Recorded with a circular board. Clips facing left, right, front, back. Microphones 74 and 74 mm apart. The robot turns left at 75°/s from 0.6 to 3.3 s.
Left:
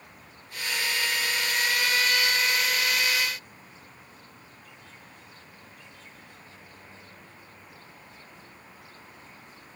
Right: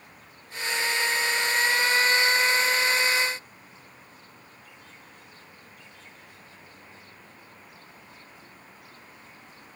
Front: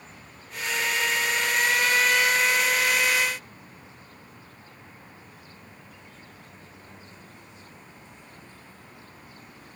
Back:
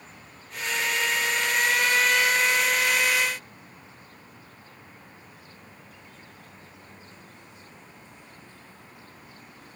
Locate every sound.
Only background noise.